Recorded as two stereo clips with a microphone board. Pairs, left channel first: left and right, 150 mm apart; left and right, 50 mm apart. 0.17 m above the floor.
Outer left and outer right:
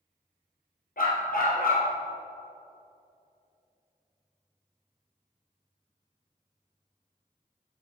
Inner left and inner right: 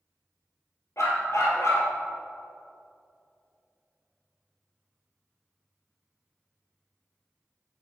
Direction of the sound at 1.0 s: 75° left (ahead or behind).